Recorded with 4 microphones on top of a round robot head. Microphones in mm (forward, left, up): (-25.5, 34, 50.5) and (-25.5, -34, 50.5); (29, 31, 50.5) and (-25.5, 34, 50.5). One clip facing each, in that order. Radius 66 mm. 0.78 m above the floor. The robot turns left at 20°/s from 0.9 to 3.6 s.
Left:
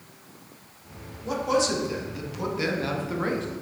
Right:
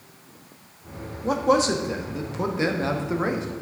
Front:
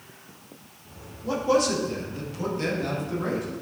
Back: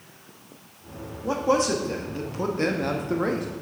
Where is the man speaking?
115° right, 1.5 m; by 3.5 s 160° right, 1.5 m.